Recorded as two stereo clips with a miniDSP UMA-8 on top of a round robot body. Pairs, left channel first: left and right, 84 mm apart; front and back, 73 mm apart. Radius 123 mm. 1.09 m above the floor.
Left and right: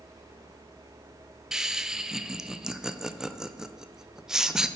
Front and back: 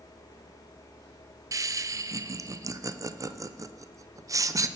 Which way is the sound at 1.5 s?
170° right.